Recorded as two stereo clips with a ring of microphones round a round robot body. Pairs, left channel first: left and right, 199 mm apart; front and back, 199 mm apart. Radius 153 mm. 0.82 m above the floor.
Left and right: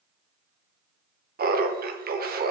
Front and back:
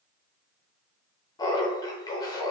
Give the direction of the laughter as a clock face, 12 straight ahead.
2 o'clock.